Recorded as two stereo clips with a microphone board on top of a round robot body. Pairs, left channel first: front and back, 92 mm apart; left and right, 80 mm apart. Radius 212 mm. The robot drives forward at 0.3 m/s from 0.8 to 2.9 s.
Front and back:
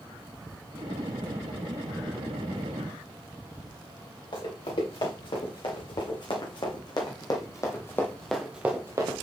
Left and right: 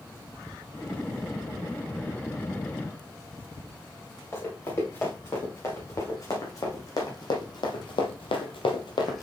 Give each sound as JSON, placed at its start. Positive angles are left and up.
{"t": 4.3, "sound": "running footsteps", "azimuth_deg": 30, "distance_m": 4.5}